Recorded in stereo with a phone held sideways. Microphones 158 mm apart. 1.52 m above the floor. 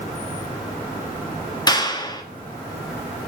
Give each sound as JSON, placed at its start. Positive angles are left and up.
{"t": 1.7, "sound": "a clap", "side_deg": 25, "distance_m": 1.8}